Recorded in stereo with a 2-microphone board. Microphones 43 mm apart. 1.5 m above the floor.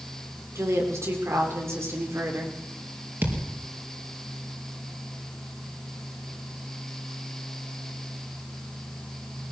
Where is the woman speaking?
90° right, 6 m; by 2.5 s 80° right, 5.5 m.